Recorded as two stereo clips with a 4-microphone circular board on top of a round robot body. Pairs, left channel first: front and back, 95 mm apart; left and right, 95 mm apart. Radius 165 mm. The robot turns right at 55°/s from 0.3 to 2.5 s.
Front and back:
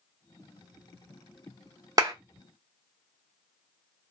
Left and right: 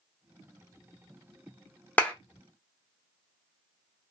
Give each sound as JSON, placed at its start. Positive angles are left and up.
{"t": 2.0, "sound": "a clap", "azimuth_deg": 155, "distance_m": 1.1}